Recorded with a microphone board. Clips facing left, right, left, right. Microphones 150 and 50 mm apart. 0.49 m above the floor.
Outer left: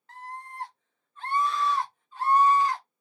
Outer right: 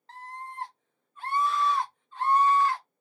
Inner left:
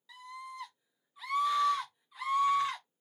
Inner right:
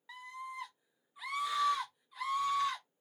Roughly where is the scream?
Right.